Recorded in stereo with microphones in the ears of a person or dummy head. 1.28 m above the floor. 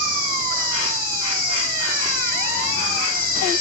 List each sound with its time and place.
0.0 s an insect: 75° left (ahead or behind), 1.2 m